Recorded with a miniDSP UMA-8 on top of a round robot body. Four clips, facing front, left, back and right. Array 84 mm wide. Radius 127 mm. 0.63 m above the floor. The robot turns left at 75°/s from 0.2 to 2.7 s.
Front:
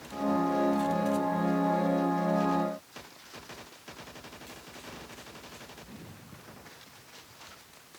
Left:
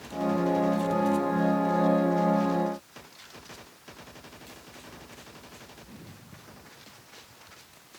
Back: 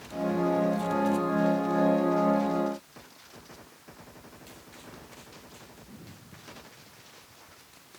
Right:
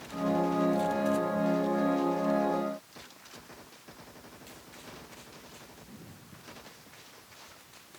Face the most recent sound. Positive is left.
No sound to turn to.